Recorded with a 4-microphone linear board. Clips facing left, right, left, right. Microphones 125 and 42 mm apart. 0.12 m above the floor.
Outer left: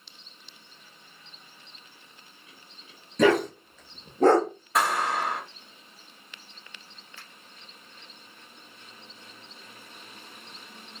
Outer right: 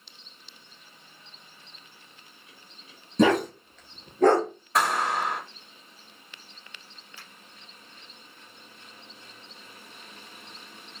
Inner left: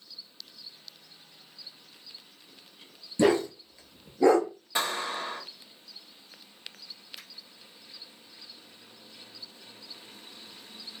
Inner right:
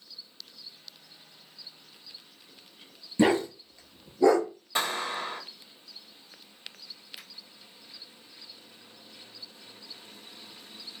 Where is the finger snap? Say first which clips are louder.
Even, inner right 1 dB; 15° right (ahead or behind), 2 m.